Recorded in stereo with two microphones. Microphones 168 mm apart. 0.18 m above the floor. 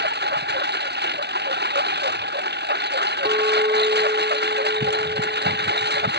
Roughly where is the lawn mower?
Right.